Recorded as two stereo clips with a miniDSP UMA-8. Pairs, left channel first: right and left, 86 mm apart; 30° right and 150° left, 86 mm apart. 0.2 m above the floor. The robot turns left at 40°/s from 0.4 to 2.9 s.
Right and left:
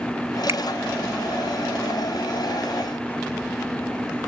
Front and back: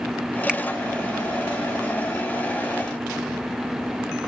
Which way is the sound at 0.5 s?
80° left.